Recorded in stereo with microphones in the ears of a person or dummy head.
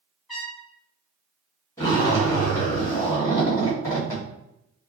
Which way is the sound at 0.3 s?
5° right (ahead or behind).